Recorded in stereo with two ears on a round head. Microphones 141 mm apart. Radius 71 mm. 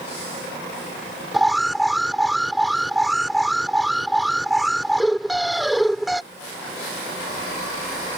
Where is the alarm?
Centre (ahead or behind).